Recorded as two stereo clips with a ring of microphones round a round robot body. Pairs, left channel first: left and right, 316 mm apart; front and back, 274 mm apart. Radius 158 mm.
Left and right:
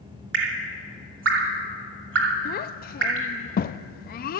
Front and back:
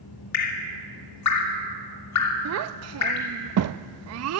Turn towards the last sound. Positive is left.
turn(degrees=150)